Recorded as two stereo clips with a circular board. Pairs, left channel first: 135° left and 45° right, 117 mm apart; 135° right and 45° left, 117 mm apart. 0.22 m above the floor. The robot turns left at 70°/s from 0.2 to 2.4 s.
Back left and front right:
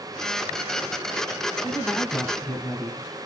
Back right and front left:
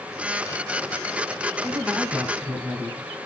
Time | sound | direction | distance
1.6 | a woman speaking | 115° left | 1.2 m